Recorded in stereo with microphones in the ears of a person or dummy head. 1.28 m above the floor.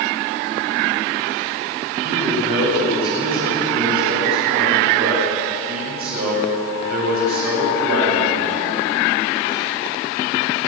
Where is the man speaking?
55° right (ahead or behind), 9 m.